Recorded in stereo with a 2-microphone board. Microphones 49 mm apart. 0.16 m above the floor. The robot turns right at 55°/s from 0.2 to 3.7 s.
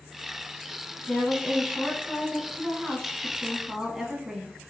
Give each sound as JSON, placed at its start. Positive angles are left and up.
{"t": 1.1, "sound": "a woman speaking", "side_deg": 20, "distance_m": 1.1}